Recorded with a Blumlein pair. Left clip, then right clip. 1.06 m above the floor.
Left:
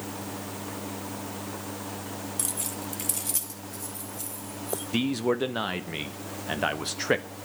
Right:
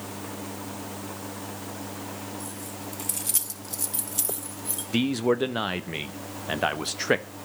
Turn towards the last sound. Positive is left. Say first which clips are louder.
# right 3 dB
turn(degrees=-5)